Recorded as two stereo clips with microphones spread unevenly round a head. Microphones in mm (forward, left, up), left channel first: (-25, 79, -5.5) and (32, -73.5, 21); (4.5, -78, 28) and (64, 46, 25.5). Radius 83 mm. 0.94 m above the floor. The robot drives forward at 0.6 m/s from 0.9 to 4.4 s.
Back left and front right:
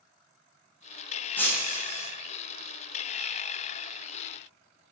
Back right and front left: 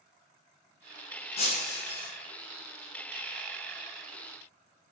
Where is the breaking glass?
165° right, 0.8 m; by 2.1 s 170° right, 1.2 m.